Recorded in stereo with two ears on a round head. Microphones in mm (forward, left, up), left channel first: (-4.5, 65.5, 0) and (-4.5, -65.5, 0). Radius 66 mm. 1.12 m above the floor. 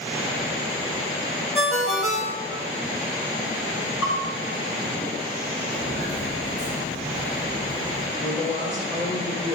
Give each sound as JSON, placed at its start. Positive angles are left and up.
{"t": 1.6, "sound": "a ringtone", "side_deg": 0, "distance_m": 1.1}
{"t": 4.0, "sound": "a bell", "side_deg": 30, "distance_m": 2.5}
{"t": 5.7, "sound": "footsteps", "side_deg": 50, "distance_m": 2.5}
{"t": 8.2, "sound": "a woman speaking", "side_deg": 45, "distance_m": 3.0}